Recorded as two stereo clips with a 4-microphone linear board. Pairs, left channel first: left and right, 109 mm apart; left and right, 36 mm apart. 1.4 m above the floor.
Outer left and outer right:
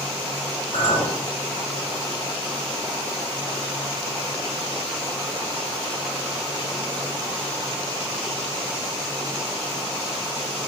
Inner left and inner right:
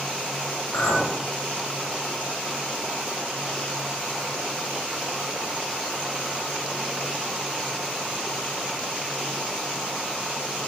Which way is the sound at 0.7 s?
80° left.